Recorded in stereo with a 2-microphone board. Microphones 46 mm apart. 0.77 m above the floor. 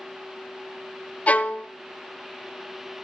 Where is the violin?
30° left (ahead or behind), 0.5 m.